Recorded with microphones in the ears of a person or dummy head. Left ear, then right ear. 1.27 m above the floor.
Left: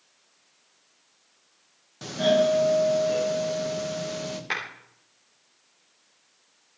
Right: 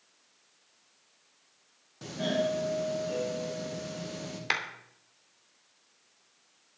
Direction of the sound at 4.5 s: 30° right (ahead or behind).